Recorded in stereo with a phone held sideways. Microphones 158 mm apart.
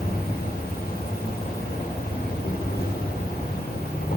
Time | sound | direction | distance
0.0 | an insect | 80° left | 4.5 m